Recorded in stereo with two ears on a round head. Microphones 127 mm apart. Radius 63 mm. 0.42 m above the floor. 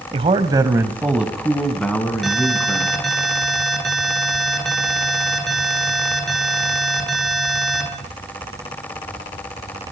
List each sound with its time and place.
0.1 s a man speaking: 40° right (ahead or behind), 2.0 m; by 3.0 s 20° left (ahead or behind), 4 m
2.2 s an alarm: centre (ahead or behind), 9 m